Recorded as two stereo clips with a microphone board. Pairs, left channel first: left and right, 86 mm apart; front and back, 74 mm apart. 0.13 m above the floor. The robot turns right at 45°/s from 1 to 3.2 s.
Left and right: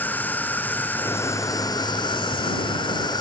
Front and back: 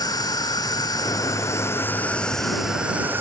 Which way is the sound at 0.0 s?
20° left.